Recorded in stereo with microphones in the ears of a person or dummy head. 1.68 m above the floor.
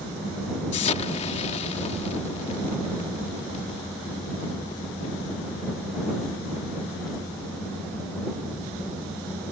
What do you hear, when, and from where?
0.7 s an explosion: 35° left (ahead or behind)